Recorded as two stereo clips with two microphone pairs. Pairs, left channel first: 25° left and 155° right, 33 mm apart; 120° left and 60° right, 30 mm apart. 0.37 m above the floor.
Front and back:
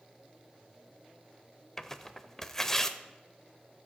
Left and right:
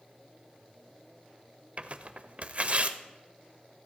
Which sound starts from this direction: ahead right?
Tearing paper, at 1.8 s.